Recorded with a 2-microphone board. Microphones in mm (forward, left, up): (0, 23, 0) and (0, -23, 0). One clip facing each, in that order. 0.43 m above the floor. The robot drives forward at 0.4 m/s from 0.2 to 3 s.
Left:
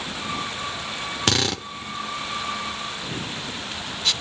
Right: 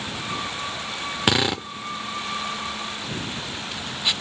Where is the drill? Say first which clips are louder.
Right 3 dB; 15° right (ahead or behind), 0.7 m.